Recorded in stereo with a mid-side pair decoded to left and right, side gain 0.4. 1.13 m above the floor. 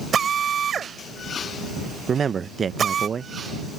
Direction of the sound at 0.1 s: 55° right.